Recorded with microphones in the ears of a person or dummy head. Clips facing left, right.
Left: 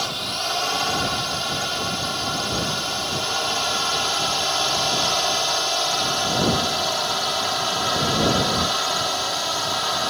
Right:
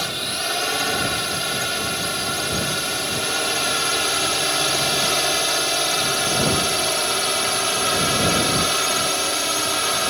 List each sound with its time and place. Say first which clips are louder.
0.0 s a drone: even; 30° right (ahead or behind); by 10.1 s 35° right (ahead or behind)